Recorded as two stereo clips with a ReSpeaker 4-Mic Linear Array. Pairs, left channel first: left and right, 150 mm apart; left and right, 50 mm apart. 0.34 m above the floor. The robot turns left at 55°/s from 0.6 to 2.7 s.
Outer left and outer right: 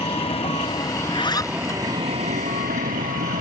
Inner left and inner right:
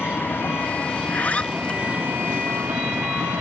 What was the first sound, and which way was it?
A vehicle, 40° left (ahead or behind).